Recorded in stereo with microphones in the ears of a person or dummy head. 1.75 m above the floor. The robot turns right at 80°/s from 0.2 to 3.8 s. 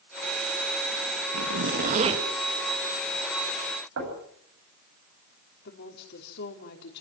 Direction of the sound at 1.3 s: 90° right.